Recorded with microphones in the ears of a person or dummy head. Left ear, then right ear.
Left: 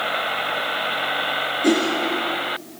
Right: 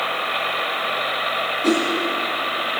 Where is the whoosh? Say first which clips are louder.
Left 1 dB; centre (ahead or behind), 4 m.